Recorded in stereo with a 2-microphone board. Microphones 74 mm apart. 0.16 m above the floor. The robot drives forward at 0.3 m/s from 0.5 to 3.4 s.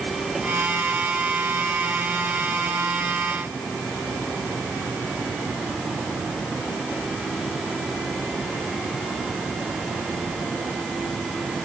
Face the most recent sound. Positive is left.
No sound to turn to.